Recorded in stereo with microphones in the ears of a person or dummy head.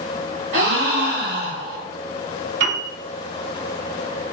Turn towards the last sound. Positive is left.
turn(degrees=-65)  # may be behind; listen again after turning